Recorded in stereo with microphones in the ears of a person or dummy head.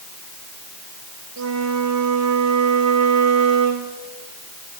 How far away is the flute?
About 1.7 m.